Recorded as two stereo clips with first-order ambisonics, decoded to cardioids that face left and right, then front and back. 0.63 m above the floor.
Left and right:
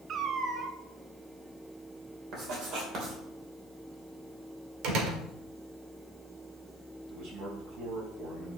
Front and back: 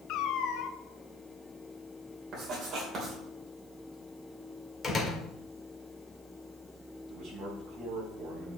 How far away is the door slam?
About 1.6 m.